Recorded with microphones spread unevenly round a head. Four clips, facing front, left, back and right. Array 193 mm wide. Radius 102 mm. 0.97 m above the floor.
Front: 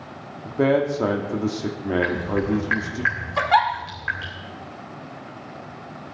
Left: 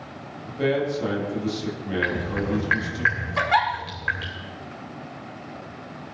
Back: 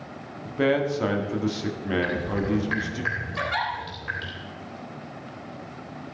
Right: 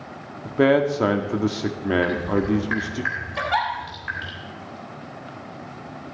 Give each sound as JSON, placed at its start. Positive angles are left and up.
{"t": 0.5, "sound": "a man speaking", "azimuth_deg": -60, "distance_m": 2.5}
{"t": 2.0, "sound": "dripping", "azimuth_deg": 130, "distance_m": 3.5}
{"t": 3.4, "sound": "a giggle", "azimuth_deg": 0, "distance_m": 2.0}